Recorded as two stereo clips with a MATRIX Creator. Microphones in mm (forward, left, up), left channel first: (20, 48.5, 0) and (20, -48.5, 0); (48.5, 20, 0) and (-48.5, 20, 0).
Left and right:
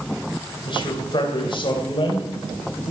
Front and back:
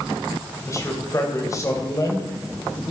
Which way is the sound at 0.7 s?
55° left.